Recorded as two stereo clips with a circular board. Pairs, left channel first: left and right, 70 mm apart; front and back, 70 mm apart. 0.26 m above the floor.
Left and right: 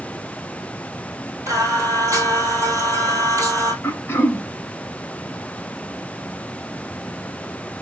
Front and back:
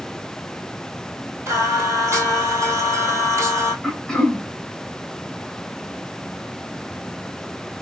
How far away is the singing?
About 1.1 m.